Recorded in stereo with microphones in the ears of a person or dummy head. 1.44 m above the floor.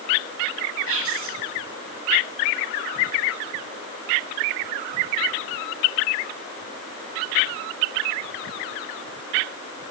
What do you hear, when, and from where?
0.9 s whispering: 80° right, 1.6 m